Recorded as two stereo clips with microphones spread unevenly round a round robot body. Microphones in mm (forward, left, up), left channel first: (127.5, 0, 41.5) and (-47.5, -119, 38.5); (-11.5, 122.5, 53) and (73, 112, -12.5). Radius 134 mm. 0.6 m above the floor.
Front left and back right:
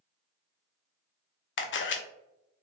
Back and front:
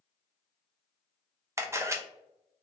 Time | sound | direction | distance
1.6 | a camera shutter | 10° left | 0.6 m